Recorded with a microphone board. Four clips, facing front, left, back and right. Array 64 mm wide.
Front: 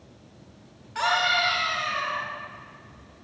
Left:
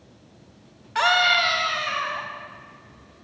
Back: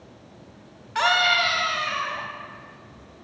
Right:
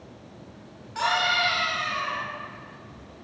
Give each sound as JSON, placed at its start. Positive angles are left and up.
{"t": 0.9, "sound": "a scream", "azimuth_deg": 120, "distance_m": 2.0}